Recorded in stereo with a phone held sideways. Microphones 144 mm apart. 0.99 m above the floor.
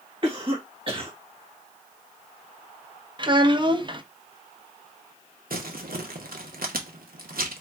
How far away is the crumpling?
About 0.8 m.